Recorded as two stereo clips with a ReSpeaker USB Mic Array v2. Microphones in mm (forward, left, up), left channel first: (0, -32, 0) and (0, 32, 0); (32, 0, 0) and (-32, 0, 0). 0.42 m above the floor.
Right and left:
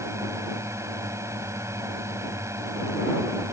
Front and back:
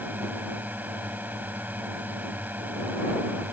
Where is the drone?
120° left.